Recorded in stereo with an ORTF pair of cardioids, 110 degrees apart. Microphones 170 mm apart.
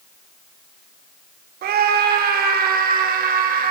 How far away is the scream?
About 6 m.